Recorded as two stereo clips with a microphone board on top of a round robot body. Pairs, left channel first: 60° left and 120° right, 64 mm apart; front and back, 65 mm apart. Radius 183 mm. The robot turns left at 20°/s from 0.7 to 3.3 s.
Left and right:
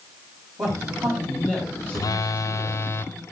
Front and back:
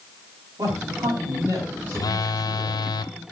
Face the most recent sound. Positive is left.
turn(degrees=0)